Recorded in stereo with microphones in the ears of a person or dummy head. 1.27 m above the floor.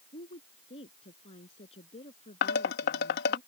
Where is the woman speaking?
30° left (ahead or behind).